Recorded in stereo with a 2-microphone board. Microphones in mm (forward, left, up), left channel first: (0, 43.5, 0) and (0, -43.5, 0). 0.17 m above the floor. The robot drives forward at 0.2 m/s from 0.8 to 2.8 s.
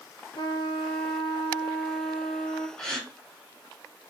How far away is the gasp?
About 2 m.